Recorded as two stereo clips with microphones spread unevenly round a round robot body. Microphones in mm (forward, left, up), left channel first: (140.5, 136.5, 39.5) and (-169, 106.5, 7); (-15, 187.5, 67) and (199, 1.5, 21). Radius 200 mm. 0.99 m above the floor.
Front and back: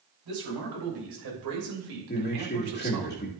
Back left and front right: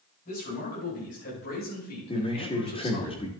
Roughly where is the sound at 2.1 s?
Ahead left.